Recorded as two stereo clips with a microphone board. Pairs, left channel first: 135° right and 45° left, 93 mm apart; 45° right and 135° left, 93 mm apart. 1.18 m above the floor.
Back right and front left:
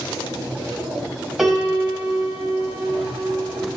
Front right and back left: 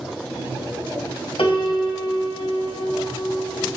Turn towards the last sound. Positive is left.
turn(degrees=-45)